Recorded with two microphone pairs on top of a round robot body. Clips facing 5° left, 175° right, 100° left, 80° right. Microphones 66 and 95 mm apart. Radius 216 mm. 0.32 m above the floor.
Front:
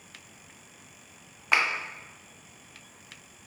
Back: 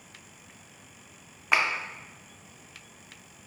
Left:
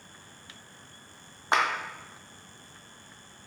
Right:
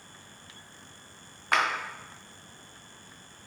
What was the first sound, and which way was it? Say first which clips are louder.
A clap: even, left 1 dB; 100° left.